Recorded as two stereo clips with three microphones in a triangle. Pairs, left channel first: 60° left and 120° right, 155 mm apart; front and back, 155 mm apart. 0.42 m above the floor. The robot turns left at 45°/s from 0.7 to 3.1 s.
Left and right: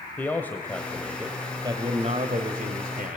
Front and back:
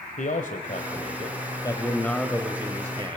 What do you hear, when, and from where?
0.2 s a man speaking: 20° right, 1.6 m; by 3.2 s 125° right, 1.6 m